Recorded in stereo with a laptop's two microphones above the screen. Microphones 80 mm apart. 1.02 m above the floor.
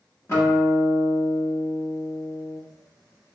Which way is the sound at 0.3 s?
35° left (ahead or behind).